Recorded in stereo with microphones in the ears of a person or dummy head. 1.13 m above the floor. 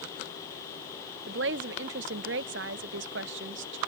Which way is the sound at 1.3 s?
55° right (ahead or behind).